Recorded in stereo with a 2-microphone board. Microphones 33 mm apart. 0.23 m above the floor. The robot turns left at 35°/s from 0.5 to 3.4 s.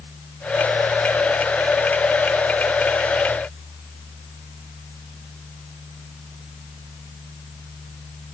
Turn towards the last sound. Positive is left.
No sound to turn to.